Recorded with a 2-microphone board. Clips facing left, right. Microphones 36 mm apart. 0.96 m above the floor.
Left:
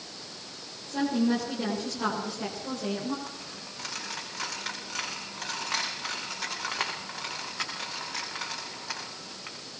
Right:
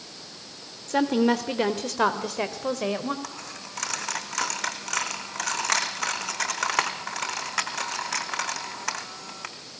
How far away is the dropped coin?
About 3.5 m.